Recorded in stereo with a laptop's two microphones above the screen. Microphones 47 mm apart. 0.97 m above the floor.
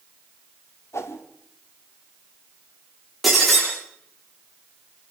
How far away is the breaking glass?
About 10 m.